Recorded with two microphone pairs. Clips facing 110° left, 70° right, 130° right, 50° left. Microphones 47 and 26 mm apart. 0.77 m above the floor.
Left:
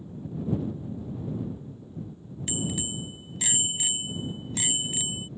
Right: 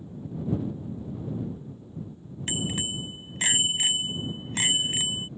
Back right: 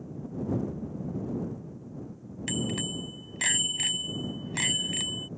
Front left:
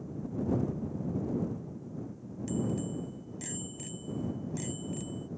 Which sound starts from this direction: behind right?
A bicycle bell, at 2.5 s.